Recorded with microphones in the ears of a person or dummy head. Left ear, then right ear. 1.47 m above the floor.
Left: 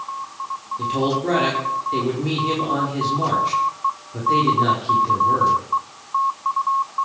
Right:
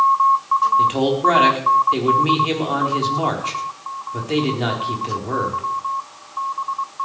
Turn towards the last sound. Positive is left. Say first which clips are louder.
# right 5 dB
turn(degrees=-40)  # may be behind; listen again after turning